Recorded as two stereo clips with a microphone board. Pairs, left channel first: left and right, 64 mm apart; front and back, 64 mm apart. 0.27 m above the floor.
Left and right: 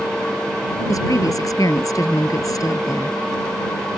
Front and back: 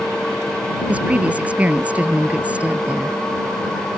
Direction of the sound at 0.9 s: 110° left.